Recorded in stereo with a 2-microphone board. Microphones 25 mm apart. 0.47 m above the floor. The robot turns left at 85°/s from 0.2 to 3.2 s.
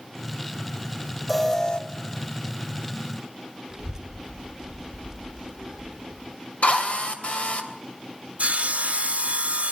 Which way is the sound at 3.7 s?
20° right (ahead or behind).